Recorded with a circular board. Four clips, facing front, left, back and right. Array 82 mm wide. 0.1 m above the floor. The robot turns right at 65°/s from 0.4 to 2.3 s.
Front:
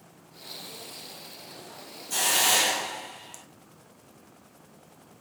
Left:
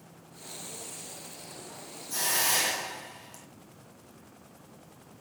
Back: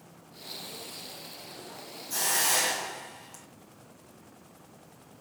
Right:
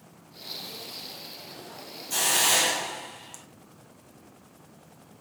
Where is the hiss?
55° right, 1.4 m; by 3.4 s 45° right, 1.4 m.